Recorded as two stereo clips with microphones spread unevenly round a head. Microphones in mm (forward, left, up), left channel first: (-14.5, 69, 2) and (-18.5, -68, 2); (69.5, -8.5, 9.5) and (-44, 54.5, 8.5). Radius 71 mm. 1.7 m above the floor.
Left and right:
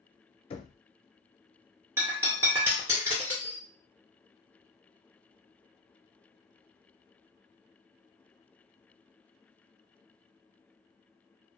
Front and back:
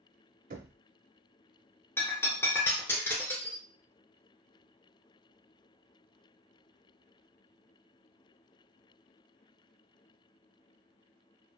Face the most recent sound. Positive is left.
turn(degrees=-70)